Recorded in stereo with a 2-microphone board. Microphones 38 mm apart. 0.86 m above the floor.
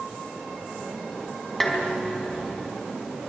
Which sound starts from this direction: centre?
Dishes clattering, at 1.6 s.